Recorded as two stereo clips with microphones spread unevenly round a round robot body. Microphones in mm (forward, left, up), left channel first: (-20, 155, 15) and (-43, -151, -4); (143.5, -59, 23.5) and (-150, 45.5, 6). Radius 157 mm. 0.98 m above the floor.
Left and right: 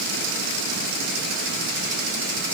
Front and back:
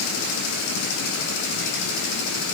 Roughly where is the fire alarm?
No fire alarm in this recording.